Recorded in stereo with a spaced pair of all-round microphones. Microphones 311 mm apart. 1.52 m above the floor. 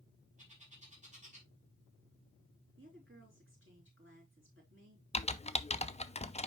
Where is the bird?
25° right (ahead or behind), 3.5 m.